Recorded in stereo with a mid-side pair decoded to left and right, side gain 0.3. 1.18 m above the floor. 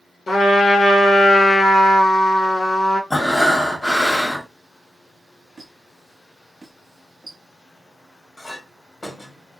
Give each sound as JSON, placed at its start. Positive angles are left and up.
{"t": 0.3, "sound": "a trumpet", "azimuth_deg": 60, "distance_m": 1.3}
{"t": 3.1, "sound": "breathing", "azimuth_deg": 30, "distance_m": 1.2}
{"t": 5.6, "sound": "a squeak", "azimuth_deg": -45, "distance_m": 1.2}
{"t": 8.4, "sound": "a clink", "azimuth_deg": 35, "distance_m": 1.8}